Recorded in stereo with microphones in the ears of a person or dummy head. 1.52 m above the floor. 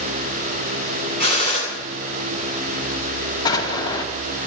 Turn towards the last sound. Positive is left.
turn(degrees=20)  # may be behind; listen again after turning